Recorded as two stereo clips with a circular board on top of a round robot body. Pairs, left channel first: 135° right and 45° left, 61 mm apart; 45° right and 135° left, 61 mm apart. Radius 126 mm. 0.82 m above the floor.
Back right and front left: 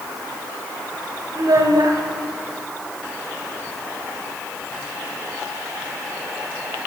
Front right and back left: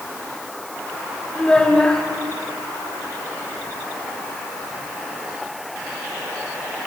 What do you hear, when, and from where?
1.4 s a child speaking: 30° left, 3.5 m